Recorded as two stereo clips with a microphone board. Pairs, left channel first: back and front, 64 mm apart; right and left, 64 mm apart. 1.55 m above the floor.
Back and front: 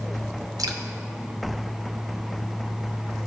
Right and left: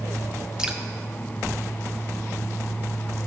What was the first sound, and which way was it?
Dripping, 10° left.